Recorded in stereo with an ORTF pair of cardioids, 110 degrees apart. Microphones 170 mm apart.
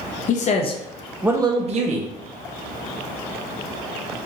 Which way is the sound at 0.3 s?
55° left.